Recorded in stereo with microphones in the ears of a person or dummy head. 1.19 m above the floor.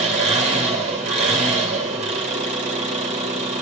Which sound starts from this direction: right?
An engine running, at 0.0 s.